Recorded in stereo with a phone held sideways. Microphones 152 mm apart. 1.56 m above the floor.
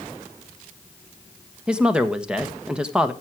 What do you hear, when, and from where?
1.7 s a woman speaking: 5° right (ahead or behind), 1.3 m